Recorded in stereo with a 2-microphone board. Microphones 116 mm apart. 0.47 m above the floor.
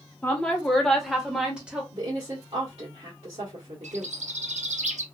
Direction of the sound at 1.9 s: 50° right (ahead or behind).